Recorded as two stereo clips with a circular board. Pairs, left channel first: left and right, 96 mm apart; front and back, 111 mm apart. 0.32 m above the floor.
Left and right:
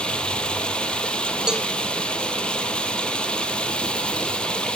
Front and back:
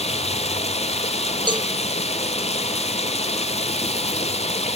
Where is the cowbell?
170° right, 0.6 m.